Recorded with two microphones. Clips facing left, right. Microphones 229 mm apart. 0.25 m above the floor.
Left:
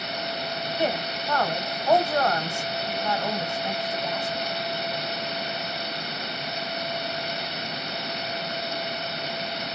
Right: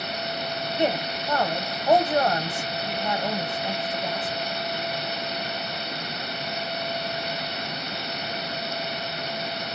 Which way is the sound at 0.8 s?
20° right (ahead or behind).